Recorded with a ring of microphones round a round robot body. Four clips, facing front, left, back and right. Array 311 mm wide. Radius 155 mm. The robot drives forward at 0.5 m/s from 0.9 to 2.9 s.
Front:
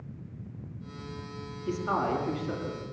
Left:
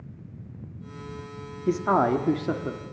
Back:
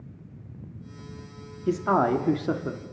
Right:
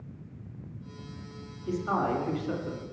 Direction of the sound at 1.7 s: 125° left.